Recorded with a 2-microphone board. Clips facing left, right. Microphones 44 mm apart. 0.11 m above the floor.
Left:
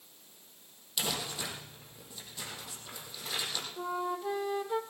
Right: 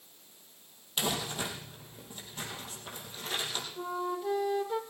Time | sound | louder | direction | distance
1.0 | crumpling | right 3 dB | 35° right (ahead or behind) | 4 m
3.8 | a flute | even | 5° left (ahead or behind) | 1.0 m